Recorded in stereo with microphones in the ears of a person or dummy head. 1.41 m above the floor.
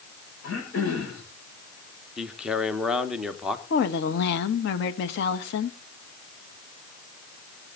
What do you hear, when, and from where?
0.4 s throat clearing: 80° left, 6.5 m
2.2 s a man speaking: 10° right (ahead or behind), 1.1 m
3.7 s a woman speaking: 80° left, 1.5 m